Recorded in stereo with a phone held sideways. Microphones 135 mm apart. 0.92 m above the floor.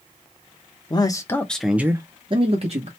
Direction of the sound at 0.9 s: 30° left (ahead or behind).